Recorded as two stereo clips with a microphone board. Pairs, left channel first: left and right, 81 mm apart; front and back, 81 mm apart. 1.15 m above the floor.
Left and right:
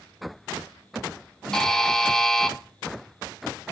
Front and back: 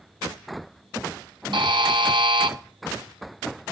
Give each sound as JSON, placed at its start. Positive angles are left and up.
{"t": 1.5, "sound": "a buzzer", "azimuth_deg": 175, "distance_m": 1.4}